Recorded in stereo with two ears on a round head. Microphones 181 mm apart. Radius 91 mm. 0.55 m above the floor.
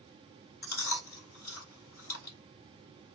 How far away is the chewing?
About 2 m.